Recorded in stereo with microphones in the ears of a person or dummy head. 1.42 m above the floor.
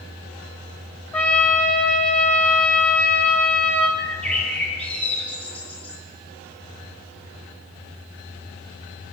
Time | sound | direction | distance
1.1 | a trumpet | 10° left (ahead or behind) | 3.5 m
4.0 | a bird | 10° left (ahead or behind) | 7 m